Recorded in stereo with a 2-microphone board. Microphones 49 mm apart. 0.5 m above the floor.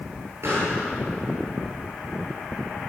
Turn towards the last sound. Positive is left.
turn(degrees=-65)  # may be behind; listen again after turning